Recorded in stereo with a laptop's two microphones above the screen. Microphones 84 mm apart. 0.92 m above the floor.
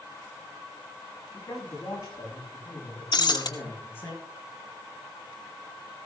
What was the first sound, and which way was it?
A man speaking, 45° left (ahead or behind).